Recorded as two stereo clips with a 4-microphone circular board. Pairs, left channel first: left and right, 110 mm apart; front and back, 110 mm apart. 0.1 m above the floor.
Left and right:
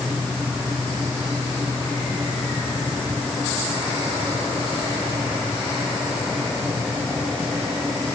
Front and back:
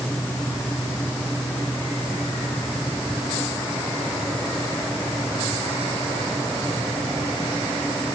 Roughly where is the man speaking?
No man speaking in this recording.